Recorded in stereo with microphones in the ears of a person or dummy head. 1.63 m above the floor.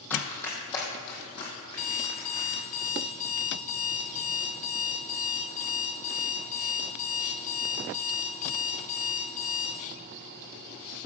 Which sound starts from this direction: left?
An alarm clock, at 1.7 s.